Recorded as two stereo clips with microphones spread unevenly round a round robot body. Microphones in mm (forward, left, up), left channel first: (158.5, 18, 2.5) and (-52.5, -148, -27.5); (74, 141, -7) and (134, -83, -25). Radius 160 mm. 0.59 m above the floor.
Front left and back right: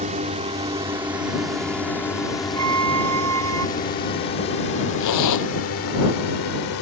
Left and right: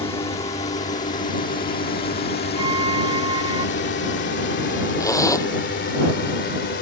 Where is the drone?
170° left; by 6.8 s 70° left.